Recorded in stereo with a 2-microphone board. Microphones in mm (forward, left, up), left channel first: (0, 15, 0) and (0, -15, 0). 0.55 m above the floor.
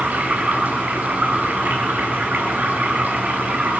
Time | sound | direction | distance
0.0 | running water | 80° right | 4.5 m